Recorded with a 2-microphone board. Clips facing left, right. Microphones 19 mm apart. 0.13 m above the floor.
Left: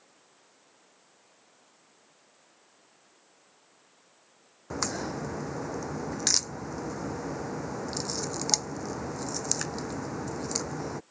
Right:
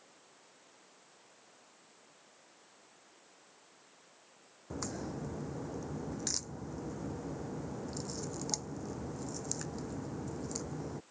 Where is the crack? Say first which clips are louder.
Left 8 dB; 40° left (ahead or behind).